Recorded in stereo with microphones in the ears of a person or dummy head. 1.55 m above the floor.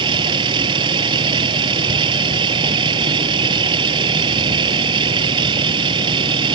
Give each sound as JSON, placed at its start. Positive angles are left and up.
{"t": 0.0, "sound": "a vehicle", "side_deg": -25}